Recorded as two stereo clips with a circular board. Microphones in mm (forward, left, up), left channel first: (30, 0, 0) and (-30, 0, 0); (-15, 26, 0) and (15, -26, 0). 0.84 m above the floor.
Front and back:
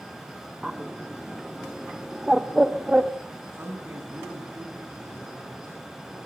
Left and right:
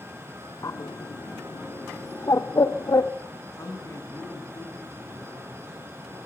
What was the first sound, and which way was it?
A bird, 100° left.